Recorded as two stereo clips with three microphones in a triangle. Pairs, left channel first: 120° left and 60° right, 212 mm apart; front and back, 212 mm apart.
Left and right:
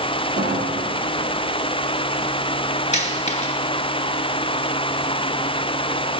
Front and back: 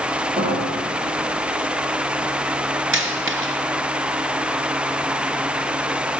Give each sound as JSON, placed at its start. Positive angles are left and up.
{"t": 0.4, "sound": "a piano", "azimuth_deg": -120, "distance_m": 9.5}
{"t": 2.9, "sound": "a dropped coin", "azimuth_deg": 175, "distance_m": 2.0}